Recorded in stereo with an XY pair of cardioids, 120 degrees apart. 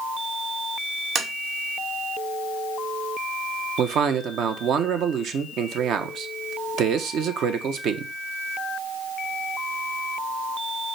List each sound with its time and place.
1.1 s tapping: 50° right, 0.9 m
3.8 s a man speaking: 65° right, 0.8 m